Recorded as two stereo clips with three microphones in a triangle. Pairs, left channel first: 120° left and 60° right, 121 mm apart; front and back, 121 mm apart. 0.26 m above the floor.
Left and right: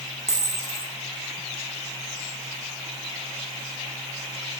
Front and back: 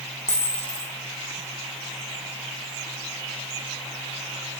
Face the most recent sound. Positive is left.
turn(degrees=55)